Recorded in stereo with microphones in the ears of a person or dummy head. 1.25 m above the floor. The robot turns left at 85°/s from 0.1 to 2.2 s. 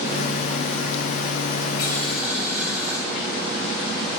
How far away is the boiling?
About 8 m.